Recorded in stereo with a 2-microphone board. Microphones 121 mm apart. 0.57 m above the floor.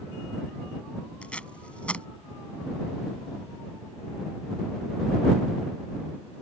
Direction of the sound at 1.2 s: 10° left (ahead or behind).